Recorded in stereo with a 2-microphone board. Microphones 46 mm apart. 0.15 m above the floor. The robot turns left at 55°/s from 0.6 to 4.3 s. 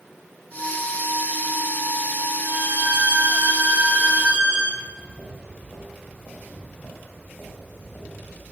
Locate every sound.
2.4 s a violin: 60° right, 4.5 m; by 4.6 s 160° right, 4.5 m
4.7 s footsteps: 85° left, 7.5 m; by 8.4 s 50° left (ahead or behind), 9 m